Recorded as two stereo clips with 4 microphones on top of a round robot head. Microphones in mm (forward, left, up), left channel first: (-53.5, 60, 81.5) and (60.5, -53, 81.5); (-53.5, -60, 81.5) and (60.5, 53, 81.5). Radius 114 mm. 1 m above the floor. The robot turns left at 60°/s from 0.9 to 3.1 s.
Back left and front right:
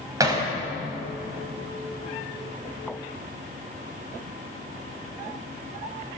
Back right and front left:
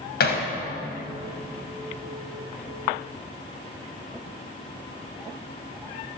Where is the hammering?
115° right, 4.5 m.